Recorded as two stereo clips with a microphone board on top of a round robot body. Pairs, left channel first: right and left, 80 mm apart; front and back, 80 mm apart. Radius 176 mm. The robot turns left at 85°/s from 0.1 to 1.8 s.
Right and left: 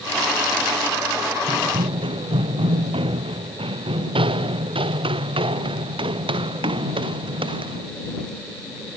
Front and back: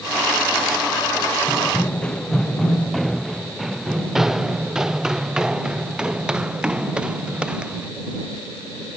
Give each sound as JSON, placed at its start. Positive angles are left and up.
{"t": 1.5, "sound": "running footsteps", "azimuth_deg": 100}